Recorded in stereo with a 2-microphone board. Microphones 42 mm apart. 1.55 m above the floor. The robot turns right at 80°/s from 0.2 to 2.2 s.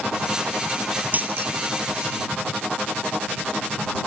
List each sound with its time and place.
1.1 s a dropped coin: 35° right (ahead or behind); by 1.5 s 70° right (ahead or behind)